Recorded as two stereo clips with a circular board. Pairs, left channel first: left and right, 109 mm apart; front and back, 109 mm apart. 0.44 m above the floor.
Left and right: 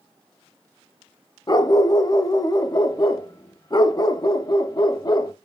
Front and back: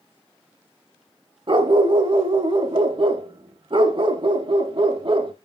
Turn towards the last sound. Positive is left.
turn(degrees=140)